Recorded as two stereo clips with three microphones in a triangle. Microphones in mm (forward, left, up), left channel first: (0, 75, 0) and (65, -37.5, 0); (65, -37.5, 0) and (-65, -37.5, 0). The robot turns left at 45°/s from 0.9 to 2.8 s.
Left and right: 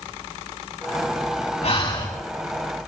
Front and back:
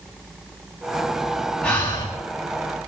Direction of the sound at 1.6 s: 80° left.